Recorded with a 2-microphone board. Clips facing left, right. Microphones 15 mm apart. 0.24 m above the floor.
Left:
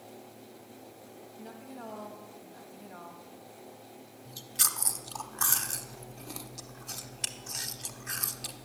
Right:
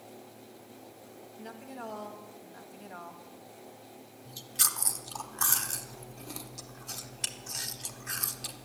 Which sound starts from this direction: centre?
Chewing, at 4.2 s.